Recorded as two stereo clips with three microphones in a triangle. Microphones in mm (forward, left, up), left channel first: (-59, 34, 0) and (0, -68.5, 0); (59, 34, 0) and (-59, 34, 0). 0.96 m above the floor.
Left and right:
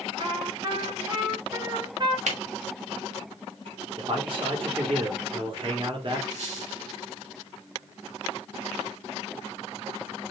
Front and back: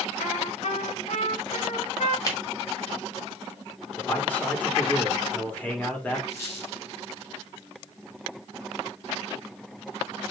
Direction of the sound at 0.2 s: 10° right.